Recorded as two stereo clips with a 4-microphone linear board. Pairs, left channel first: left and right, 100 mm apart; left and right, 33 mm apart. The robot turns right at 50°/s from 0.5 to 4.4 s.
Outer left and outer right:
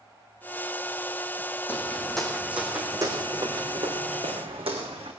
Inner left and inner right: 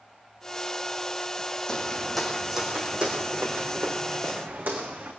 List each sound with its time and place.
1.7 s footsteps: 25° left (ahead or behind), 2.5 m; by 5.1 s 75° right (ahead or behind), 4 m